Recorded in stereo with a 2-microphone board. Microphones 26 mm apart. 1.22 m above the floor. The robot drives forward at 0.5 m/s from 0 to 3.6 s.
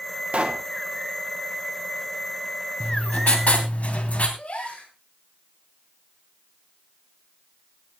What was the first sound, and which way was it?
A pop, 50° right (ahead or behind).